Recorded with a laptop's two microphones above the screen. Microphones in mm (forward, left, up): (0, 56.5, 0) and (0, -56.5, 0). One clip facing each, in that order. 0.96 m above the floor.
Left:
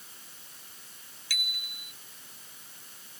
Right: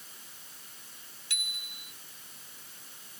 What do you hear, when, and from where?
1.3 s a bicycle bell: 25° right (ahead or behind)